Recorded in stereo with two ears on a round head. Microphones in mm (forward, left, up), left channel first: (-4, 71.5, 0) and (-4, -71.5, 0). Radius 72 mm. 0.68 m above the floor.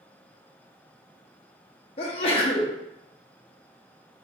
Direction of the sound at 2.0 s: 40° left (ahead or behind).